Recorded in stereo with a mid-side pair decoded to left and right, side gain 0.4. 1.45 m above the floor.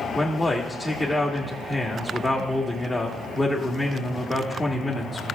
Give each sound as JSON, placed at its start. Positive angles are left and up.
{"t": 0.1, "sound": "a man speaking", "azimuth_deg": 30, "distance_m": 1.5}